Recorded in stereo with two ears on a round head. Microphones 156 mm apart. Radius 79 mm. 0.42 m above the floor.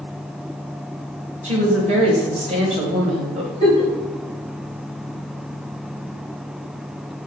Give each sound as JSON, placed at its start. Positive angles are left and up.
{"t": 1.4, "sound": "a woman speaking", "side_deg": -40, "distance_m": 1.9}
{"t": 3.6, "sound": "a giggle", "side_deg": -35, "distance_m": 2.5}